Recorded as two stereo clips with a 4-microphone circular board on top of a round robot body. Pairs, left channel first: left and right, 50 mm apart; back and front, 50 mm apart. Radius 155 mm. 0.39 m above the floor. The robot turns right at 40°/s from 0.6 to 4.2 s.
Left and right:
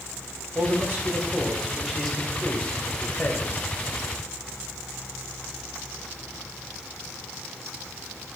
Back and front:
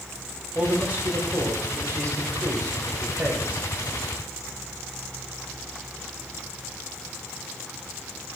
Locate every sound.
0.6 s a man speaking: 60° right, 2 m; by 3.6 s 60° left, 2 m